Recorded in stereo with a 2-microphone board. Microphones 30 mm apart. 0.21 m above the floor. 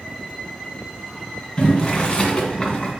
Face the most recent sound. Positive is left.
turn(degrees=30)  # may be behind; listen again after turning